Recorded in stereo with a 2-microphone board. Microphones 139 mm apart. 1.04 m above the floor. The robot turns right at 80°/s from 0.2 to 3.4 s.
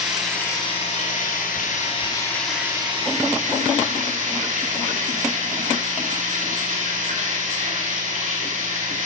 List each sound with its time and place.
0.0 s running water: 5° right, 6 m; by 9.1 s 110° right, 6 m